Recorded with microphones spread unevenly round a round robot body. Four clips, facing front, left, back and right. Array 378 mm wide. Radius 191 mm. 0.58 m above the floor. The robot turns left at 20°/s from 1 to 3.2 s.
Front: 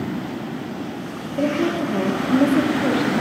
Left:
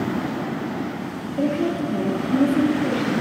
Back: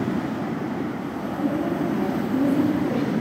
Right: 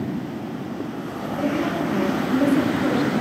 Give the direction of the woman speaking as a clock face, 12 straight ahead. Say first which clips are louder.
Left 2 dB, front 4 dB; 11 o'clock.